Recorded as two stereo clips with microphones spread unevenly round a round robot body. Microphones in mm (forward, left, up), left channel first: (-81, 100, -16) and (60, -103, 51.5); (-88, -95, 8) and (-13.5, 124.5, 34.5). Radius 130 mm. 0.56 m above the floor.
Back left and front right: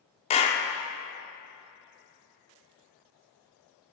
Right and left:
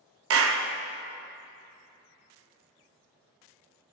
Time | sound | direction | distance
0.3 | a clap | 80° left | 0.6 m